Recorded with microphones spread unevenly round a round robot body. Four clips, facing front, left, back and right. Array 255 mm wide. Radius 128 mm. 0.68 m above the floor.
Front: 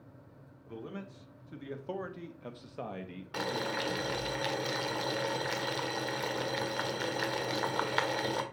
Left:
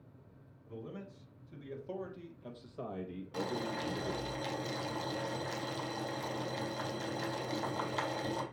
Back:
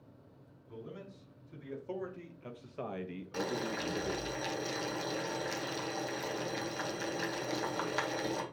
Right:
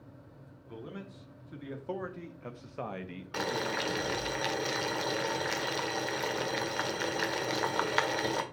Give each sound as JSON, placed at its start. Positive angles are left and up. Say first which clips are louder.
{"t": 0.7, "sound": "a man speaking", "louder": "right 2 dB, front 4 dB", "azimuth_deg": -40, "distance_m": 2.0}
{"t": 3.3, "sound": "boiling", "louder": "right 4 dB, front 2 dB", "azimuth_deg": -60, "distance_m": 1.5}